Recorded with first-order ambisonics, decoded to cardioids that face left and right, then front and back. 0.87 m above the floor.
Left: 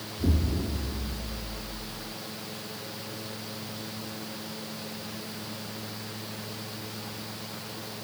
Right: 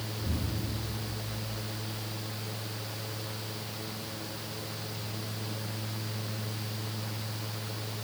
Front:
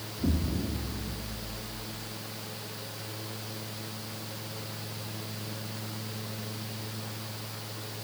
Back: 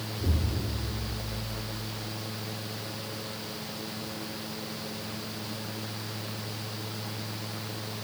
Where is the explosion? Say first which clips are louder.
Left 9 dB, front 4 dB; 70° left, 1.4 m.